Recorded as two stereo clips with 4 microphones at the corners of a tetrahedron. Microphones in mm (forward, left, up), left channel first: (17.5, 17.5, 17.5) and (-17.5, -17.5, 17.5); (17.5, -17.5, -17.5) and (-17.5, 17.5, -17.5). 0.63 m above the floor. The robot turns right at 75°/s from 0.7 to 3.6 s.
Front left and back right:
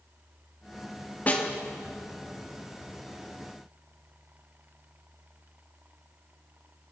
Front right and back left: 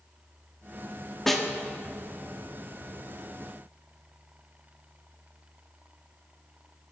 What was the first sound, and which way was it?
A snare drum, 35° left.